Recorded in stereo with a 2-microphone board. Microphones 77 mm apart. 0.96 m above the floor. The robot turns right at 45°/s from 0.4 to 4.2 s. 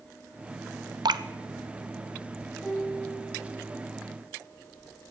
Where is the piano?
170° right, 8.5 m; by 3.8 s 115° right, 8.5 m.